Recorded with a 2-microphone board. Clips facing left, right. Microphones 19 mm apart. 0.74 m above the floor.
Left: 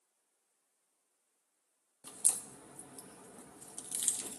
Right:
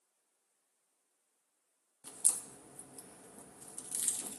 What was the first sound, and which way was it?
A crack, 30° left (ahead or behind).